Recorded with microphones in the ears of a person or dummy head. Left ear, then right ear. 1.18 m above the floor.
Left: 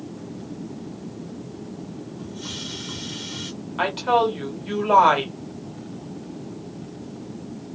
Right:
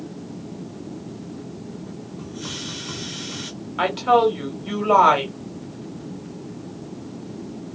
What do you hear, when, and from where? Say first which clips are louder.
2.2 s a hiss: right 2 dB; 20° right (ahead or behind), 0.7 m
3.8 s a woman speaking: right 3 dB; centre (ahead or behind), 1.0 m